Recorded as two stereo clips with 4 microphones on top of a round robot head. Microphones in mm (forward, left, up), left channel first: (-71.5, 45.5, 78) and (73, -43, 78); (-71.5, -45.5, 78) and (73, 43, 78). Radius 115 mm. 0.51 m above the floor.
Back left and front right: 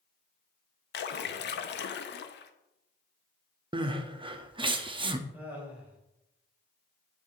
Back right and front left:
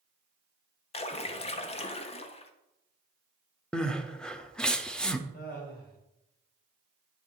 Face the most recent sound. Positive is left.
turn(degrees=-115)